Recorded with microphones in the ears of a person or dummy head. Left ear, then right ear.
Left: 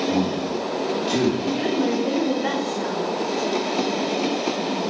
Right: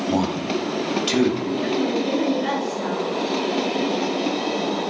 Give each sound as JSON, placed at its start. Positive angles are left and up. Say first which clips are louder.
{"t": 0.1, "sound": "a man speaking", "louder": "right 1 dB", "side_deg": -70, "distance_m": 2.5}
{"t": 1.4, "sound": "a woman speaking", "louder": "left 1 dB", "side_deg": 25, "distance_m": 3.5}